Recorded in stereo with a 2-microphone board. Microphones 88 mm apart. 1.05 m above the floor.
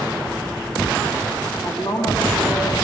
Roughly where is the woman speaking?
Left.